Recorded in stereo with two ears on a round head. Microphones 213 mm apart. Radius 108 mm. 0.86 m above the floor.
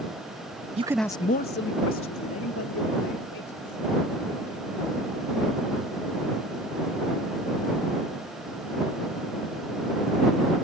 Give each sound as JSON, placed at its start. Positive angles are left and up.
{"t": 0.8, "sound": "a man speaking", "side_deg": -25}